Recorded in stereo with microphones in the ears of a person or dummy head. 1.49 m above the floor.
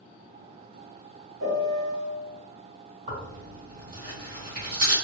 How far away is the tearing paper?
About 1.7 m.